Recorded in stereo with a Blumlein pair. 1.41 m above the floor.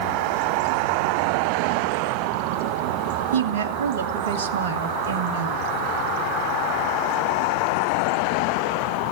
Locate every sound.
3.3 s a woman speaking: 55° right, 1.9 m